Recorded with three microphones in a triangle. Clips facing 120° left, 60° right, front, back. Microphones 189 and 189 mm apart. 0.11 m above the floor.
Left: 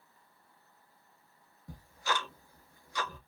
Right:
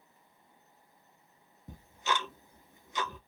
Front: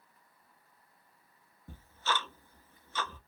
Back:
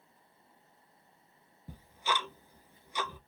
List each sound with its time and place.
1.7 s ticking: 115° right, 0.6 m